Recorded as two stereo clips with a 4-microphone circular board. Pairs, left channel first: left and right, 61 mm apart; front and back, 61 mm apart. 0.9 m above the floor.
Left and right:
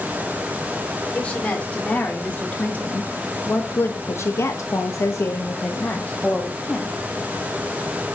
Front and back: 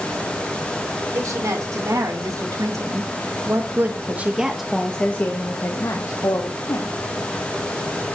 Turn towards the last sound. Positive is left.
turn(degrees=15)